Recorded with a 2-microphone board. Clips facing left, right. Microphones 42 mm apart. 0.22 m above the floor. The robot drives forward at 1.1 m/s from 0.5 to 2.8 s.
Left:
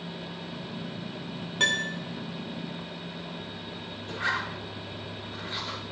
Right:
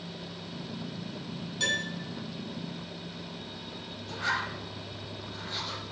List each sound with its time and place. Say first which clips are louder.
1.6 s a piano: left 4 dB; 50° left (ahead or behind), 0.8 m; by 2.0 s 40° left (ahead or behind), 1.0 m
4.1 s a zipper: left 1 dB; 40° left (ahead or behind), 3 m